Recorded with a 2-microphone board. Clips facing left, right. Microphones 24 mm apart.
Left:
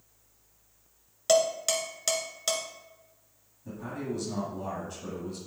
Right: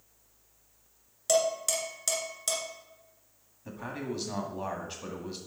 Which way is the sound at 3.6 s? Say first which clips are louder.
Left 1 dB; 50° right (ahead or behind).